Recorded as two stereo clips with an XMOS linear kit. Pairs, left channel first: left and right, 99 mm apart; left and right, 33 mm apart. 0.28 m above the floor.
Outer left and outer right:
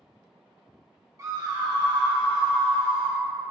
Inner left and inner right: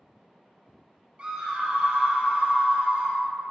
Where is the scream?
35° right (ahead or behind), 1.2 m; by 3.2 s 65° right (ahead or behind), 2.5 m.